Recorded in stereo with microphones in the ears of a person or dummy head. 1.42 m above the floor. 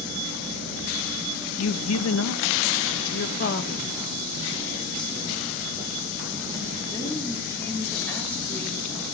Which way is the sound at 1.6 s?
85° left.